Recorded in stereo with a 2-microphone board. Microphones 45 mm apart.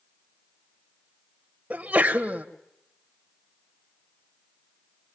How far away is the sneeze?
About 1.5 m.